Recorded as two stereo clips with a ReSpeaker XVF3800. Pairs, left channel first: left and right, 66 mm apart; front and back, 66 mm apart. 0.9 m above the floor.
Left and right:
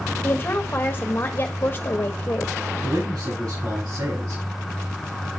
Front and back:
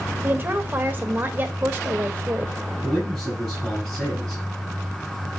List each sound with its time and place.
0.2 s a woman speaking: 135° left, 1.4 m
2.8 s a man speaking: 85° right, 5.5 m